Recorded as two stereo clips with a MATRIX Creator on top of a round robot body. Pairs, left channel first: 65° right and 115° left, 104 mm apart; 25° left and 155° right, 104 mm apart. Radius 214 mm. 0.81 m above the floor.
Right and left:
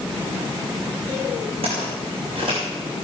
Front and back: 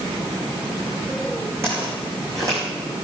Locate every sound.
1.6 s footsteps: 140° left, 5 m; by 2.6 s 145° left, 4.5 m